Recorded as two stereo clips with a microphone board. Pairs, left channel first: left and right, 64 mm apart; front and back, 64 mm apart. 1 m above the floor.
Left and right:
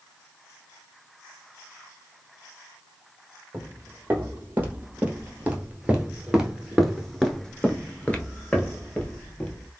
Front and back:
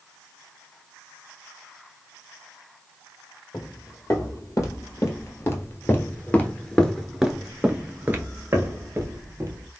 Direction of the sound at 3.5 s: 30° right.